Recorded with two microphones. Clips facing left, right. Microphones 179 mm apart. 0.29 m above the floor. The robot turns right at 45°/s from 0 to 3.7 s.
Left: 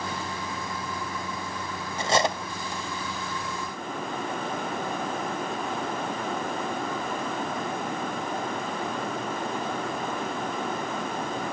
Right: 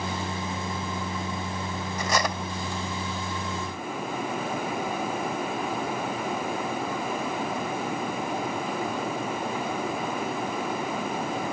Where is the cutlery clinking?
30° left (ahead or behind), 0.7 m; by 2.8 s 20° left (ahead or behind), 0.7 m.